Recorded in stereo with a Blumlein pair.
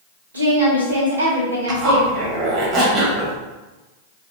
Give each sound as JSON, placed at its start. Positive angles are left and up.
{"t": 0.3, "sound": "a woman speaking", "azimuth_deg": -70, "distance_m": 1.4}
{"t": 1.7, "sound": "a zipper", "azimuth_deg": -30, "distance_m": 1.1}